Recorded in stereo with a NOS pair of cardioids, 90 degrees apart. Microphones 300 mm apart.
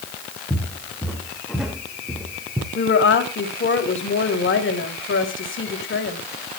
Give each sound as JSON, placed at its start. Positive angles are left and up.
{"t": 0.5, "sound": "footsteps", "azimuth_deg": 5, "distance_m": 4.0}
{"t": 2.8, "sound": "a woman speaking", "azimuth_deg": 40, "distance_m": 5.5}